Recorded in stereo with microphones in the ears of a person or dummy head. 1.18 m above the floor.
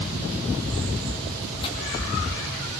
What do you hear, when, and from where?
1.6 s tearing paper: 30° left (ahead or behind), 2 m